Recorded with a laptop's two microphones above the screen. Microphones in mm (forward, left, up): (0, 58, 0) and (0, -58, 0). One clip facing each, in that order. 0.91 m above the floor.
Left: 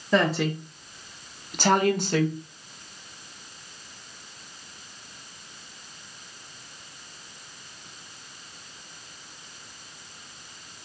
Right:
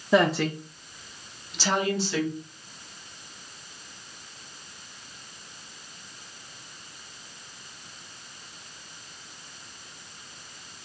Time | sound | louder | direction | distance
0.1 | a woman speaking | right 1 dB | 5° right (ahead or behind) | 0.7 m